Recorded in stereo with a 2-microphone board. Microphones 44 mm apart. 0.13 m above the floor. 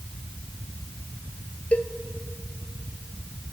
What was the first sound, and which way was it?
A cowbell, 35° left (ahead or behind).